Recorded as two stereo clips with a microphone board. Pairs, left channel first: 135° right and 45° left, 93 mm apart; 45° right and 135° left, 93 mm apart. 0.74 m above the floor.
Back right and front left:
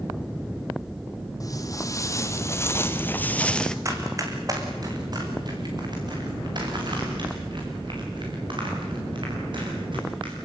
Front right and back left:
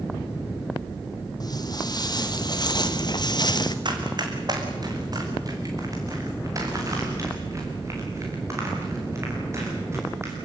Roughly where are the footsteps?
Right.